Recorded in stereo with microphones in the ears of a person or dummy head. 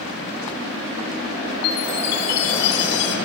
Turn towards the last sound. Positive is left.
turn(degrees=65)  # may be behind; listen again after turning